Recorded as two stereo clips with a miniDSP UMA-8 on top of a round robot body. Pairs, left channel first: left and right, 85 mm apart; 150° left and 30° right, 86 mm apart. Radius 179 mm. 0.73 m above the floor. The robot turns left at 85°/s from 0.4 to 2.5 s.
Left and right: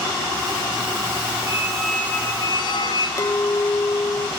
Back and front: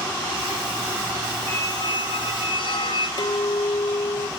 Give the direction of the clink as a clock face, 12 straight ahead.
7 o'clock.